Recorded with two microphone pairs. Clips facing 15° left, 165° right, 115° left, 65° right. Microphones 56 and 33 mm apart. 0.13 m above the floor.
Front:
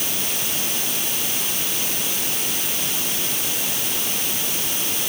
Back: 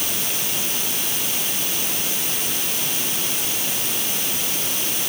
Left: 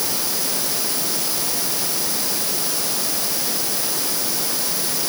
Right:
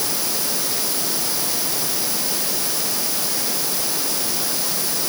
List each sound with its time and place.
Only background noise.